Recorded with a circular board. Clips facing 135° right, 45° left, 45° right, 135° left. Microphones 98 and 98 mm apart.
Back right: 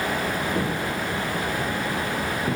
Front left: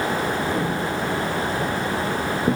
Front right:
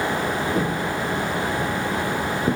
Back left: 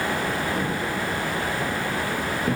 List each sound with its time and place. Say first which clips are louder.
0.6 s footsteps: front left 2 dB, front right 3 dB; 50° right, 2.0 m; by 2.5 s 15° left, 1.8 m